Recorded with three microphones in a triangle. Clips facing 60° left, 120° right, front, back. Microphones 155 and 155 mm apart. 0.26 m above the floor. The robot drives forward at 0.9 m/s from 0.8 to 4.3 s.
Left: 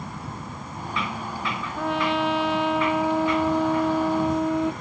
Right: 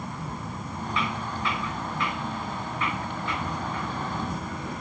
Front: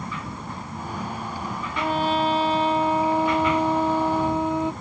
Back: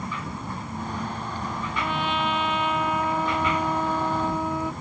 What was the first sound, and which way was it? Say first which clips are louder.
A trumpet: left 7 dB, front 5 dB; 50° left.